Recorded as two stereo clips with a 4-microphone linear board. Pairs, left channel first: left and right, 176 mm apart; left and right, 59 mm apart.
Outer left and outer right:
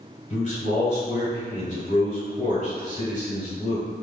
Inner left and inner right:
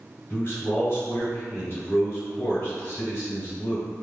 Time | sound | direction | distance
0.3 | a man speaking | 45° left (ahead or behind) | 1.7 m